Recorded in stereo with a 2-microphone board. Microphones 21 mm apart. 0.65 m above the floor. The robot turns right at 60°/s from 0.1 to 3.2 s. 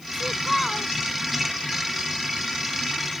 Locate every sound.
0.1 s a child speaking: 30° right; by 0.9 s 20° left